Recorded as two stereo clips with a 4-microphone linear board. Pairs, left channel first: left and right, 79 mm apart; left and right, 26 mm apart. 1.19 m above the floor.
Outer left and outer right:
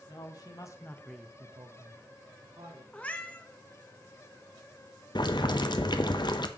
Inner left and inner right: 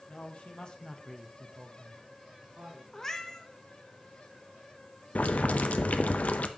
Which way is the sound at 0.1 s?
60° left (ahead or behind).